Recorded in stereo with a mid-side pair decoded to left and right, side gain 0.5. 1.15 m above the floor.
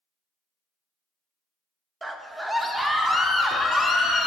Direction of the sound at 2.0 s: 20° right.